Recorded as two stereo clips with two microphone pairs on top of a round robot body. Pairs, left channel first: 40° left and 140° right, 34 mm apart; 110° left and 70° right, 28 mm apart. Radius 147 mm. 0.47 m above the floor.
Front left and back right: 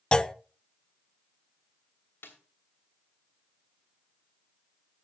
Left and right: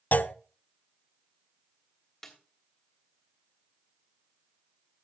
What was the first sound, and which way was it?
A clunk, 110° left.